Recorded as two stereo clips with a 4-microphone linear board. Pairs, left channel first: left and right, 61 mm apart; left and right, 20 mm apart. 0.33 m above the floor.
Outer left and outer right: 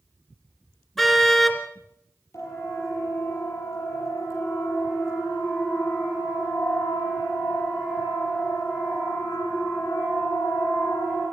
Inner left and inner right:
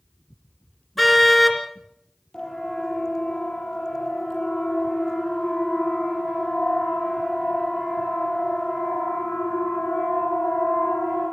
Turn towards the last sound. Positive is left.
turn(degrees=55)  # may be behind; listen again after turning